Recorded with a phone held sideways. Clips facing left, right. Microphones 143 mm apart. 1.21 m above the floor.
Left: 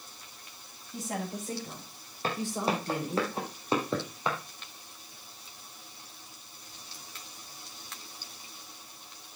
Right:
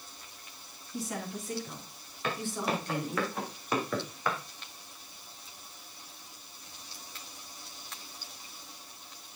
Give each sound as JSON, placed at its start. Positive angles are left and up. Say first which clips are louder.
{"t": 0.9, "sound": "a woman speaking", "louder": "left 1 dB", "side_deg": 45, "distance_m": 8.0}
{"t": 2.2, "sound": "footsteps", "louder": "left 2 dB", "side_deg": 35, "distance_m": 4.0}